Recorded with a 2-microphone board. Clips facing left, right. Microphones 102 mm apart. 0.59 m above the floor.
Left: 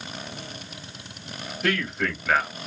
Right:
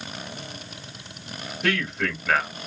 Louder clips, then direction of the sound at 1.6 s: Even; centre (ahead or behind).